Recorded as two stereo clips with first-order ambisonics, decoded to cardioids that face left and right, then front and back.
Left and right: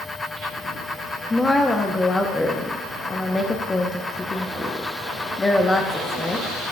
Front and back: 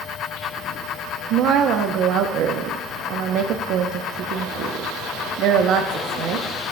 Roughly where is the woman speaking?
Behind.